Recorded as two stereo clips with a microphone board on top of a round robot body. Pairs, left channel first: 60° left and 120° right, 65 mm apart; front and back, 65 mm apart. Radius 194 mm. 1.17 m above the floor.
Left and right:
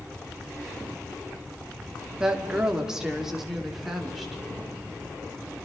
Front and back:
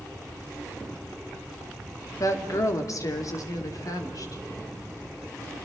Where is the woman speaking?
45° right, 2.5 m; by 4.4 s 35° right, 4 m.